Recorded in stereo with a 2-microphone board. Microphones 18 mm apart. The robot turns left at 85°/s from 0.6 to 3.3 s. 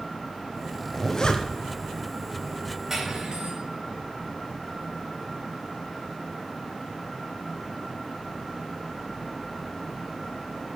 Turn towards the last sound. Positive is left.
turn(degrees=-55)